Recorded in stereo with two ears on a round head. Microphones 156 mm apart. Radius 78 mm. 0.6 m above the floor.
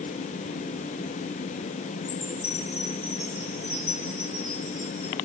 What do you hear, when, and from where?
2.0 s a chime: 45° left (ahead or behind), 9.5 m